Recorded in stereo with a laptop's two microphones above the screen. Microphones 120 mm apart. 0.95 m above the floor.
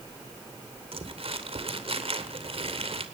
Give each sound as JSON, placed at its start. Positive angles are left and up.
{"t": 0.9, "sound": "crumpling", "side_deg": -55, "distance_m": 2.5}